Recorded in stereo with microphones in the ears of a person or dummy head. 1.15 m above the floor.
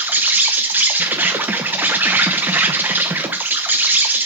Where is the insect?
5° right (ahead or behind), 0.9 m.